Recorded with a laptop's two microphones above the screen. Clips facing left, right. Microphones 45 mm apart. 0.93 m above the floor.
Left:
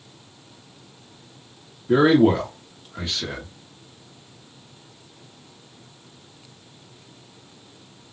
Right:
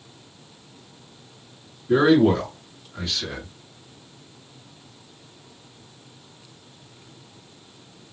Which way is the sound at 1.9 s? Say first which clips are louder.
Left 1 dB; 30° left (ahead or behind).